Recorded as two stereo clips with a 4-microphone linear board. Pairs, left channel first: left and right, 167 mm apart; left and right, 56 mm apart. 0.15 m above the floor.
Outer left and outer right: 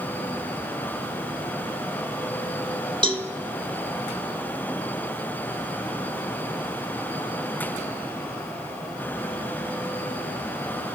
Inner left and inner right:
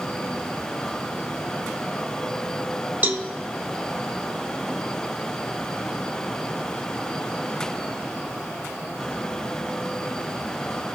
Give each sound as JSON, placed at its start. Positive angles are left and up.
{"t": 3.0, "sound": "a cowbell", "side_deg": -30, "distance_m": 0.5}